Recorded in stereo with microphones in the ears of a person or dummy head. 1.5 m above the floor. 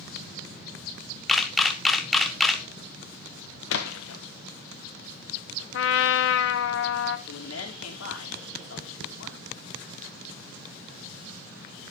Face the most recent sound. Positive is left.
turn(degrees=80)